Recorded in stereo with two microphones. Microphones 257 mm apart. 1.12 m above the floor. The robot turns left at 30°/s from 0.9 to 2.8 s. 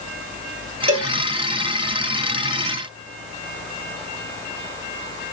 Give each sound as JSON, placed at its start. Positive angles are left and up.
{"t": 0.9, "sound": "a cowbell", "side_deg": -65, "distance_m": 1.6}